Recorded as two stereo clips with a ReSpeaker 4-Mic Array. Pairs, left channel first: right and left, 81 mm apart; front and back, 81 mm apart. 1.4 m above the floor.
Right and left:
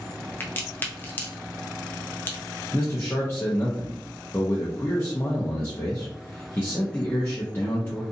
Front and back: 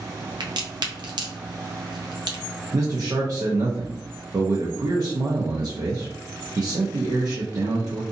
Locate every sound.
0.4 s a crack: 155° right, 0.6 m
2.7 s a man speaking: 145° right, 0.6 m